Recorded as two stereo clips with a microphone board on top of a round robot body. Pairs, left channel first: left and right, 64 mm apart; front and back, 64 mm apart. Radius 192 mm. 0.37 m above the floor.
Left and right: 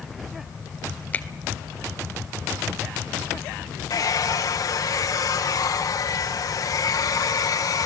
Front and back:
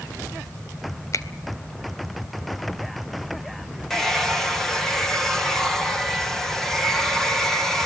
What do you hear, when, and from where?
1.1 s a finger snap: 30° left, 1.9 m
3.9 s a hair dryer: 85° left, 2.5 m